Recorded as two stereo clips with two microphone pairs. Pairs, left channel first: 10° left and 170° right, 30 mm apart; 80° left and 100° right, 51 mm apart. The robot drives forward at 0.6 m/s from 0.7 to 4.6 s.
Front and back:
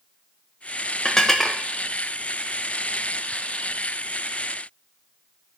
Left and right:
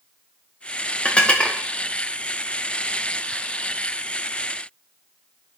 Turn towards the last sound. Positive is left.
turn(degrees=175)